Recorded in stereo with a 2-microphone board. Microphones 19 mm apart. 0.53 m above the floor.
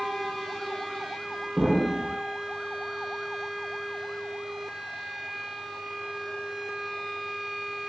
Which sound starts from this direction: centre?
An explosion, at 1.6 s.